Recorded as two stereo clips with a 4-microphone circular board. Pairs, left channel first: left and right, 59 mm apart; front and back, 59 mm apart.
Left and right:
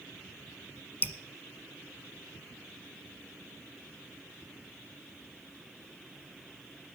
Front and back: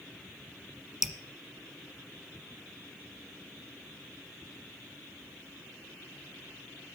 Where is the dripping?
100° left, 1.1 m.